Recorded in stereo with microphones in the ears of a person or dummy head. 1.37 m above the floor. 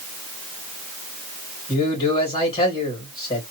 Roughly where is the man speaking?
Left.